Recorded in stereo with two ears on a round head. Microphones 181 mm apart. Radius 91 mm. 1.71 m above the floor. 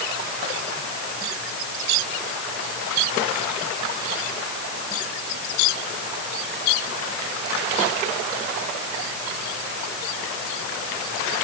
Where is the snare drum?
I don't hear a snare drum.